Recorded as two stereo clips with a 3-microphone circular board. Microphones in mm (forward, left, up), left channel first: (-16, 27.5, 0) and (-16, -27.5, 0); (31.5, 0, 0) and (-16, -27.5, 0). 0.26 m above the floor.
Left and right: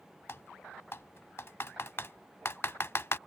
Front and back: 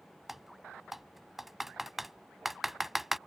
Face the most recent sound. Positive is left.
turn(degrees=130)